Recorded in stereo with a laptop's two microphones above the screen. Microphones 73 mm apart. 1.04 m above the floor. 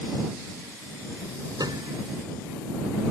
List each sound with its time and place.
1.6 s a piano: 65° right (ahead or behind)